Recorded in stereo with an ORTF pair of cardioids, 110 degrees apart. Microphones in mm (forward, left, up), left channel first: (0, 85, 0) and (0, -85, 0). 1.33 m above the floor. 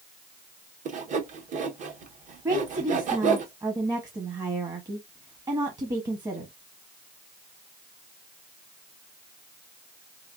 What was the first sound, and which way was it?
Sawing, 50° right.